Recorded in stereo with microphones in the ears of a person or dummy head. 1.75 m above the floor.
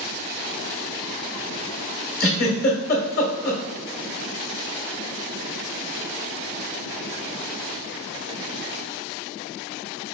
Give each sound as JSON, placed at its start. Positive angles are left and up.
{"t": 2.2, "sound": "a giggle", "side_deg": 55, "distance_m": 1.4}